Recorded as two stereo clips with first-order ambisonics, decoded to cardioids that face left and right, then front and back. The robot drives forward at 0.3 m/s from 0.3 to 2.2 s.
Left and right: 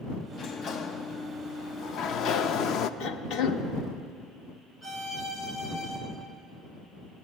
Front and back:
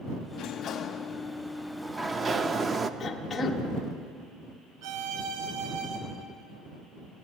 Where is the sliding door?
35° left, 0.6 m; by 2.9 s 115° left, 0.5 m.